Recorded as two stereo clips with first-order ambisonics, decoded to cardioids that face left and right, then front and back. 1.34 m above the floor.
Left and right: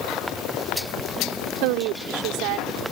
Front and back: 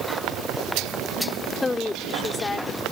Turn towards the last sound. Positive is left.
turn(degrees=-80)